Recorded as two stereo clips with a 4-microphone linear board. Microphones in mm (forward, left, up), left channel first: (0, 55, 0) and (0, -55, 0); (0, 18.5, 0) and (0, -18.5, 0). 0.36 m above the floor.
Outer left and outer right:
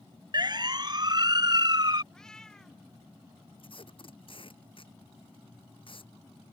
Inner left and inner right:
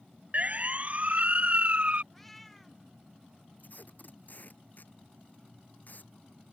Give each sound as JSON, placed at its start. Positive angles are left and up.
{"t": 0.3, "sound": "a siren", "side_deg": -40}
{"t": 2.1, "sound": "a cat meowing", "side_deg": 5}
{"t": 3.6, "sound": "tape being pulled", "side_deg": 55}